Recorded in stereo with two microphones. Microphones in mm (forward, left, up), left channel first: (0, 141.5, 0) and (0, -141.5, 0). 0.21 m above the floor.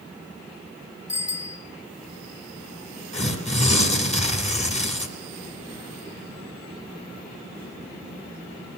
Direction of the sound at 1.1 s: 70° left (ahead or behind).